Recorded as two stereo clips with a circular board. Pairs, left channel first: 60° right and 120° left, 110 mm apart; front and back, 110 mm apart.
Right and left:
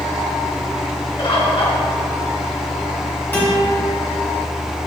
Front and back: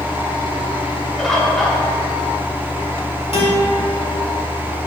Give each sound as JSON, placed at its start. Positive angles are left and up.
{"t": 1.2, "sound": "a bird", "azimuth_deg": -85, "distance_m": 1.4}
{"t": 3.3, "sound": "a guitar", "azimuth_deg": 10, "distance_m": 2.5}